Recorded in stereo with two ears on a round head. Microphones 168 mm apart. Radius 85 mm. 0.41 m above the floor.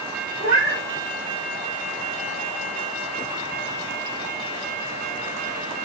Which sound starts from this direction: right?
A cat meowing, at 0.4 s.